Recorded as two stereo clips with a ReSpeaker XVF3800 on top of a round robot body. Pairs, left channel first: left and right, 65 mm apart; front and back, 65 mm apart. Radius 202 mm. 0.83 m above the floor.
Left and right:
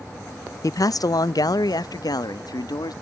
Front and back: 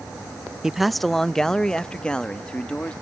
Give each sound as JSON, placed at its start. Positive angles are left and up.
{"t": 0.6, "sound": "a man speaking", "azimuth_deg": 100}